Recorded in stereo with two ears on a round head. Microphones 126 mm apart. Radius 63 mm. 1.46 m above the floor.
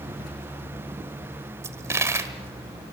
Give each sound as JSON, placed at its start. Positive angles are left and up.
{"t": 1.6, "sound": "a dropped coin", "side_deg": -20, "distance_m": 1.5}